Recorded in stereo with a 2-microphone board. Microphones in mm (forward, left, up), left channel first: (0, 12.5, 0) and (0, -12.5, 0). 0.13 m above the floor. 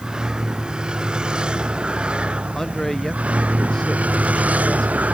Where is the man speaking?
20° left (ahead or behind).